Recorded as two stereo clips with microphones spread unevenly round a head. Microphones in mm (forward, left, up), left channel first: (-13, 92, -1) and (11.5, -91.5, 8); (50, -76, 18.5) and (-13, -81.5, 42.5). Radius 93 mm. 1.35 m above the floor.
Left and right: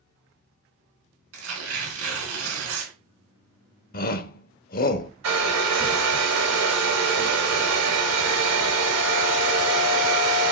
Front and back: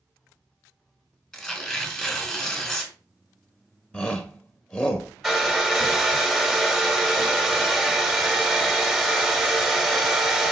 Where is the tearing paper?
70° right, 3 m.